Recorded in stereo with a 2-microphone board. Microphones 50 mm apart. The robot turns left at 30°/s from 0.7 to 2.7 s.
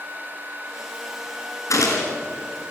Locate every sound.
1.7 s a gunshot: 85° left, 4.5 m; by 2.2 s 80° left, 4.5 m